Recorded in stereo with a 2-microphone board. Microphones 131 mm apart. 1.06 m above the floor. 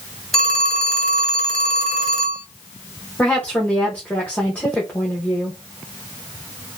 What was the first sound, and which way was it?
A phone ringing, centre (ahead or behind).